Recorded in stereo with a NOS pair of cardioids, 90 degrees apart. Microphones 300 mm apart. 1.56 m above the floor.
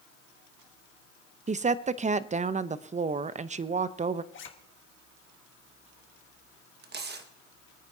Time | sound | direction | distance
1.5 | a woman speaking | 25° right | 0.7 m
4.3 | a zipper | 40° left | 1.6 m
6.8 | tearing paper | 35° right | 1.5 m